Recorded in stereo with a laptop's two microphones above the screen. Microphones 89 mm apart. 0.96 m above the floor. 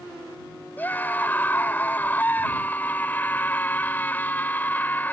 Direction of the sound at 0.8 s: 20° left (ahead or behind).